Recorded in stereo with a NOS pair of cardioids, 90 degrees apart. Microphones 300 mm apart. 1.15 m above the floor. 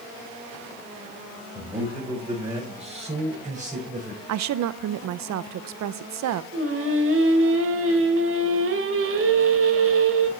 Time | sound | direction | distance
1.6 | a man speaking | 15° right | 8.5 m
4.3 | a woman speaking | 65° right | 0.6 m
6.5 | singing | 45° right | 2.5 m